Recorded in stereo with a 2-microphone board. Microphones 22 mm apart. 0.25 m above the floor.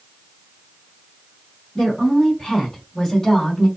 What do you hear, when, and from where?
1.8 s a woman speaking: 35° left (ahead or behind), 1.6 m; by 3.7 s 15° left (ahead or behind), 1.7 m